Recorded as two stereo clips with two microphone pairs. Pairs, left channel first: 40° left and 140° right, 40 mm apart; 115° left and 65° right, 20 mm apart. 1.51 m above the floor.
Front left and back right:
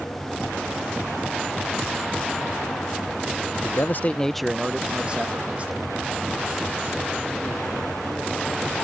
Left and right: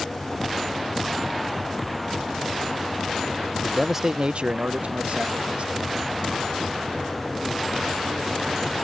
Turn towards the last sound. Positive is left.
turn(degrees=-90)